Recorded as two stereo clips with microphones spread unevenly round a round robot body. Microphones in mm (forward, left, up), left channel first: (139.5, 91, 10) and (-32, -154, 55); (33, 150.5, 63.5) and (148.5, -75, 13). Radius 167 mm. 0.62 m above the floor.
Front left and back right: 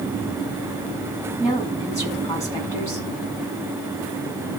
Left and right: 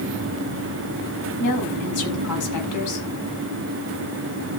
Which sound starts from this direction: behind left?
A woman speaking, at 1.4 s.